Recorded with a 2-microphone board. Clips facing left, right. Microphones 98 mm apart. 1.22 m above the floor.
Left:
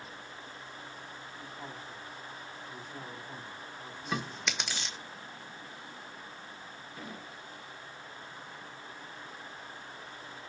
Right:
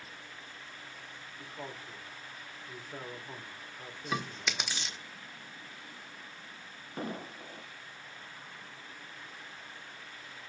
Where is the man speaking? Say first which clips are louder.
Right 2 dB; 70° right (ahead or behind), 3.5 m.